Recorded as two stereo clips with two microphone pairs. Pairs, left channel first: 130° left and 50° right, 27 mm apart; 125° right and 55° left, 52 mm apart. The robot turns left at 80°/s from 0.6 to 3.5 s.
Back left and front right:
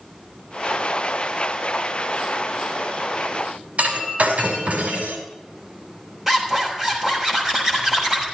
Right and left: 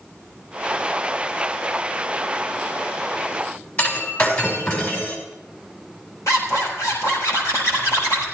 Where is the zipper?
135° right, 6 m.